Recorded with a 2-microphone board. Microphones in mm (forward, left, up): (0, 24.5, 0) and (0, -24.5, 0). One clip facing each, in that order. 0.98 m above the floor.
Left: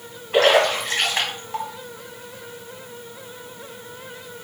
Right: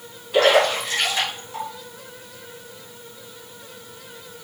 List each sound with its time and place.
0.3 s a splash: 45° left (ahead or behind), 1.7 m